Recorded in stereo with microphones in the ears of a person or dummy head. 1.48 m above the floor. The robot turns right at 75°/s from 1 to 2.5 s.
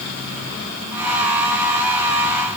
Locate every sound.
Only background noise.